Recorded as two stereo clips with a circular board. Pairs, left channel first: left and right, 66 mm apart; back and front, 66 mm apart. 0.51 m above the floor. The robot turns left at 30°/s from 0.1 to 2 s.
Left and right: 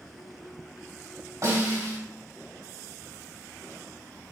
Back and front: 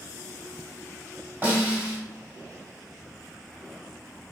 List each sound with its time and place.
1.4 s a snare drum: 60° right, 2.5 m; by 2.0 s 75° right, 2.5 m